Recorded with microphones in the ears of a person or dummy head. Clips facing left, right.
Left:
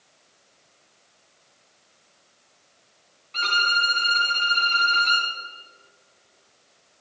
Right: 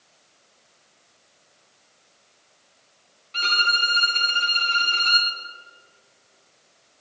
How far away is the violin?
About 4.5 m.